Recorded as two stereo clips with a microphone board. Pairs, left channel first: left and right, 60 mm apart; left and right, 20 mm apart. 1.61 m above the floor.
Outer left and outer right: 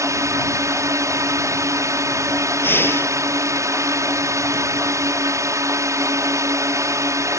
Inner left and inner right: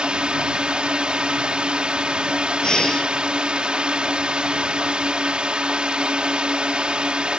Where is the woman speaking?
I don't hear a woman speaking.